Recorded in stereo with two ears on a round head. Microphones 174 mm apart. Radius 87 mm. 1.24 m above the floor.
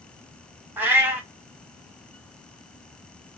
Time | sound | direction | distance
0.8 | a cat meowing | 10° right (ahead or behind) | 0.8 m